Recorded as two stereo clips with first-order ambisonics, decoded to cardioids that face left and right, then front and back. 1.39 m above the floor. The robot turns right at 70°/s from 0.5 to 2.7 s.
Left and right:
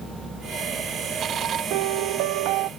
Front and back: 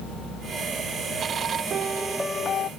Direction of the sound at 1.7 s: 120° right.